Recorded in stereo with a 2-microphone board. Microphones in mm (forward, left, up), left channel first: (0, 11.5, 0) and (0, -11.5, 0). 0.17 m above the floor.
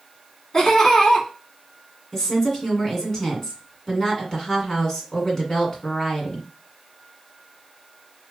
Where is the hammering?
No hammering in this recording.